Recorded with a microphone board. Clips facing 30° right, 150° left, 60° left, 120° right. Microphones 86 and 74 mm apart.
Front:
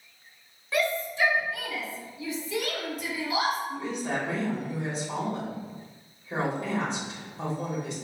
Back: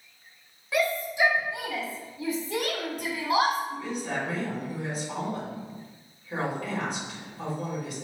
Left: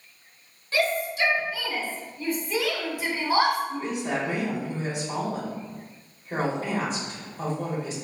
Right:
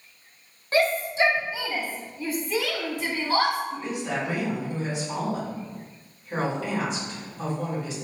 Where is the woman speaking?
25° left, 2 m.